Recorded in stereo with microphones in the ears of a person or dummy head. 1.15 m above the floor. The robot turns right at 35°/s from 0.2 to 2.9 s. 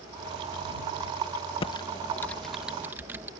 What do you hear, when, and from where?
1.6 s typing on a keyboard: 30° left (ahead or behind); by 3.3 s 10° right (ahead or behind)